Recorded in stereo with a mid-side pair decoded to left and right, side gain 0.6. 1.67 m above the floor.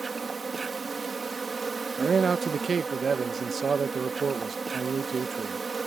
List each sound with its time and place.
0.0 s an insect: 25° right
2.0 s a man speaking: 35° right